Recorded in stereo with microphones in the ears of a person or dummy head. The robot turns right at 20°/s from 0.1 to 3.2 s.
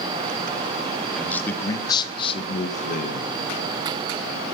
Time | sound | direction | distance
1.2 | a man speaking | 5° left | 1.3 m